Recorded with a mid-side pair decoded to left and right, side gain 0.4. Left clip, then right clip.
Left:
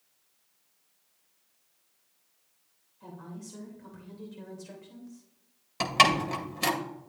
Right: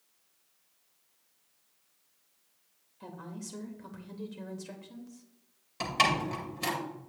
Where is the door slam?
50° left, 2 m.